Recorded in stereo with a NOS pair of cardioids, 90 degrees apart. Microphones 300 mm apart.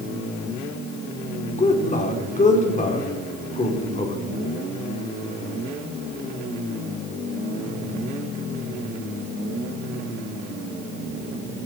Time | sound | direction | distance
1.6 | a man speaking | 25° left | 4 m